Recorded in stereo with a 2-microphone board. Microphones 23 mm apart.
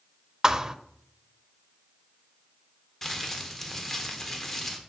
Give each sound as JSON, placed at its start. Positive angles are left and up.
{"t": 0.4, "sound": "a thud", "side_deg": -25, "distance_m": 0.5}
{"t": 3.0, "sound": "crumpling", "side_deg": 15, "distance_m": 1.3}